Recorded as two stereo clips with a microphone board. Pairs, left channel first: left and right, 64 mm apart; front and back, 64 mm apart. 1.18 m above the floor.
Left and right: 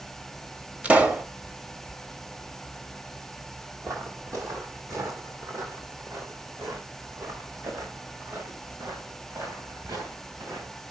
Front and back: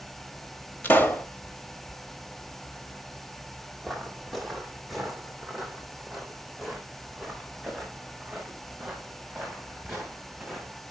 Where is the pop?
40° right, 1.1 m.